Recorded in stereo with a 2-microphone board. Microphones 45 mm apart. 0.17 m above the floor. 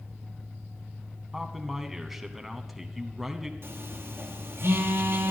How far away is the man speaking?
About 1.0 m.